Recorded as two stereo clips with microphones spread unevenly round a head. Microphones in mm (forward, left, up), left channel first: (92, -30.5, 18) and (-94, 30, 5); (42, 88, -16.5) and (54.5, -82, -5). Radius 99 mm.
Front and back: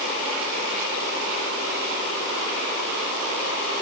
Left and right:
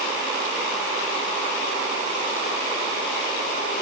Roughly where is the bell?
I don't hear a bell.